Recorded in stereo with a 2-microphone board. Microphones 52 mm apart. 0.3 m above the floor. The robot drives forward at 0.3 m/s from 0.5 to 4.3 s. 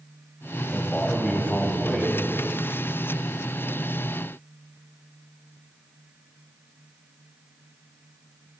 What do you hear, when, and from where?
0.7 s a man speaking: 30° left (ahead or behind), 1.2 m; by 2.2 s 25° left (ahead or behind), 1.4 m